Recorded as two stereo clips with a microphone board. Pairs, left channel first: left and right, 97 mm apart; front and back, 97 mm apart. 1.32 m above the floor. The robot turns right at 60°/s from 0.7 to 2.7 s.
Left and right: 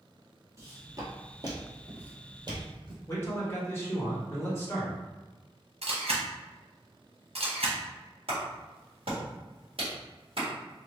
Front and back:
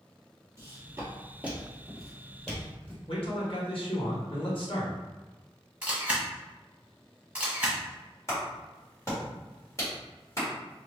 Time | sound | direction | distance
0.6 | footsteps | 130° right | 1.7 m
3.1 | a man speaking | 25° left | 1.5 m
5.8 | a camera shutter | 100° right | 1.0 m
8.3 | a clap | 60° right | 1.8 m